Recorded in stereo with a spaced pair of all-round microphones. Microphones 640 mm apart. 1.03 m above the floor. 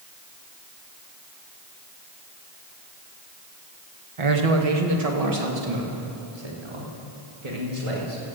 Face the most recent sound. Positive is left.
turn(degrees=-80)